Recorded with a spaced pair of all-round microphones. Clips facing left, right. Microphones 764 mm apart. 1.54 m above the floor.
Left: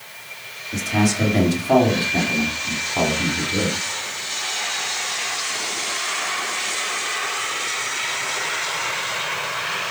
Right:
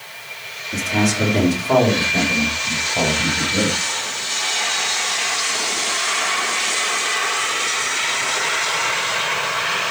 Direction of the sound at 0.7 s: 10° right (ahead or behind).